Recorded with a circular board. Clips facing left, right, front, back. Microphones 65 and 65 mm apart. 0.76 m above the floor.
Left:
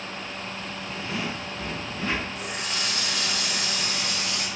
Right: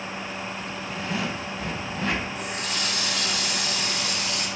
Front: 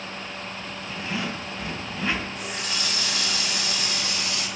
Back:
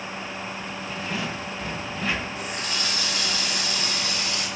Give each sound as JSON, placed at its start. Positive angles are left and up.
{"t": 0.9, "sound": "a zipper", "azimuth_deg": -100, "distance_m": 2.5}
{"t": 2.4, "sound": "a running tap", "azimuth_deg": -115, "distance_m": 3.5}